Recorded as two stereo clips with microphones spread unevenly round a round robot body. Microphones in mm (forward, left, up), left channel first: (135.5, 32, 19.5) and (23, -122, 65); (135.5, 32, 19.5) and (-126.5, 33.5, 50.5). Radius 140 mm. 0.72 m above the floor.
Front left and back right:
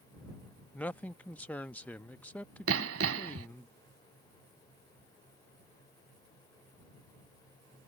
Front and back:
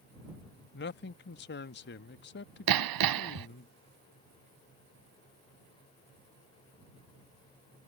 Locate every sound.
0.7 s a man speaking: 15° right
2.7 s hammering: 165° right